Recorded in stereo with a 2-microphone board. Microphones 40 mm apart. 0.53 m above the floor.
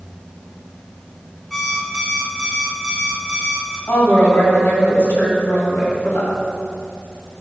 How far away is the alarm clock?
About 3 m.